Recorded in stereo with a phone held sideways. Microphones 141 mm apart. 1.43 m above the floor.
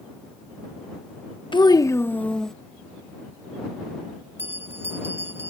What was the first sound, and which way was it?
A child speaking, 35° left (ahead or behind).